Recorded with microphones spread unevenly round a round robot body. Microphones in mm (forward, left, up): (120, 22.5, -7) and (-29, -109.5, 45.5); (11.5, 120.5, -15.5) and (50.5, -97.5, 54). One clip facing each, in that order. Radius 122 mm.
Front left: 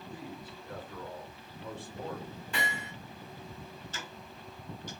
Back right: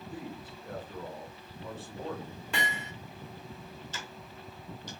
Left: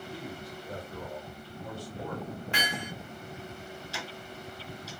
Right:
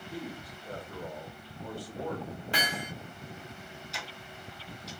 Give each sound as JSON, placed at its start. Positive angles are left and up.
{"t": 0.1, "sound": "a man speaking", "azimuth_deg": -130, "distance_m": 1.9}
{"t": 2.5, "sound": "hammering", "azimuth_deg": -140, "distance_m": 1.7}
{"t": 3.9, "sound": "ticking", "azimuth_deg": -175, "distance_m": 1.1}